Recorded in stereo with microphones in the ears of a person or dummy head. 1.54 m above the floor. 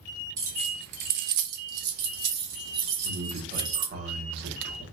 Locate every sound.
0.4 s keys jangling: 20° right (ahead or behind), 0.6 m; by 3.9 s 60° right (ahead or behind), 2.5 m
3.0 s a man speaking: 60° right (ahead or behind), 1.5 m